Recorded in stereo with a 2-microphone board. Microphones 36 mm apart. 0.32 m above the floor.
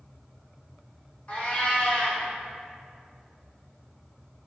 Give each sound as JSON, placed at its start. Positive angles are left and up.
{"t": 1.3, "sound": "a cat meowing", "side_deg": 40, "distance_m": 1.1}